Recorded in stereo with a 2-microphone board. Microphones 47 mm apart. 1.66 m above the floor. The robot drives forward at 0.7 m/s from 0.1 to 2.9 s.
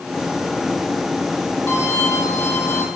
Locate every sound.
1.7 s a violin: 65° left (ahead or behind), 6 m; by 2.9 s 75° left (ahead or behind), 5.5 m